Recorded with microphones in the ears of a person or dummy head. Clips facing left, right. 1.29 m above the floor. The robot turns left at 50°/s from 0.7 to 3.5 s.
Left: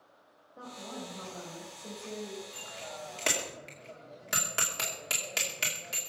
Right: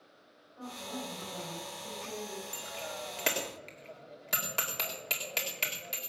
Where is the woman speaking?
110° left, 5 m; by 2.4 s 25° left, 5 m.